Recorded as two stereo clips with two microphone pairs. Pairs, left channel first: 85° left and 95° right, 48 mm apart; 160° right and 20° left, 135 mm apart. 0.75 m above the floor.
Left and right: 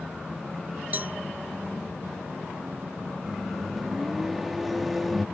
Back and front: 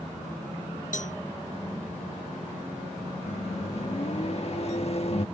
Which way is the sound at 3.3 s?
175° left.